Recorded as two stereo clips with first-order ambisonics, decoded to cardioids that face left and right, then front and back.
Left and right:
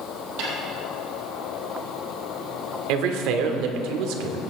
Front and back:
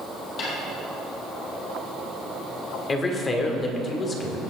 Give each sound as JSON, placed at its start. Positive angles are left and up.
{"t": 0.4, "sound": "a snare drum", "azimuth_deg": -50, "distance_m": 5.0}
{"t": 2.9, "sound": "a man speaking", "azimuth_deg": -70, "distance_m": 1.6}